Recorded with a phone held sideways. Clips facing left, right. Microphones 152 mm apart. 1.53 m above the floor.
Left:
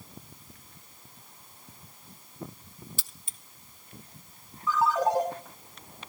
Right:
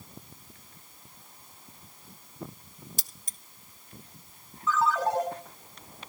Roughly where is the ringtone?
Centre.